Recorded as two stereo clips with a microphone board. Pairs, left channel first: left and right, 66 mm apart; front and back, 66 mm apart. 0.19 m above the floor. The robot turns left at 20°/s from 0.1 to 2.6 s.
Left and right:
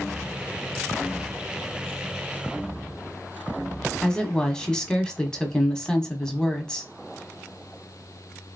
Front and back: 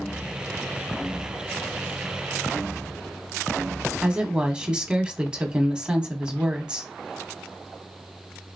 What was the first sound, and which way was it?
A woman speaking, 140° left.